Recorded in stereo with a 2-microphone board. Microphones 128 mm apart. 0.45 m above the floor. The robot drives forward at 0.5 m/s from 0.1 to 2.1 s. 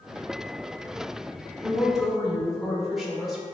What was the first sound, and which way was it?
A woman speaking, centre (ahead or behind).